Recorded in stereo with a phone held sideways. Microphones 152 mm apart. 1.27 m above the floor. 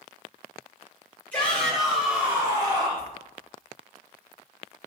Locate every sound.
1.3 s a shout: 10° left (ahead or behind), 1.6 m; by 3.1 s 40° right (ahead or behind), 1.2 m